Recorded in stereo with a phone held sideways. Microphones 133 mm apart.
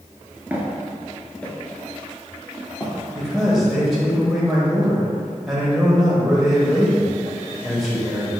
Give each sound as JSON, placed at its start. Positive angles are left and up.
{"t": 0.5, "sound": "footsteps", "side_deg": -15, "distance_m": 0.9}
{"t": 3.1, "sound": "a man speaking", "side_deg": -5, "distance_m": 0.9}